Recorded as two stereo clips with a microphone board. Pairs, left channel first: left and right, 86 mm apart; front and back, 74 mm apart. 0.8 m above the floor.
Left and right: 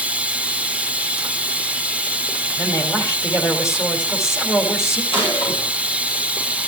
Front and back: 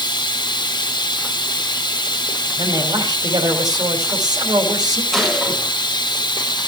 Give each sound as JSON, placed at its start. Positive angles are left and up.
{"t": 0.0, "sound": "running water", "azimuth_deg": -15, "distance_m": 0.9}
{"t": 2.6, "sound": "a man speaking", "azimuth_deg": 150, "distance_m": 3.5}
{"t": 5.1, "sound": "a gunshot", "azimuth_deg": 95, "distance_m": 9.0}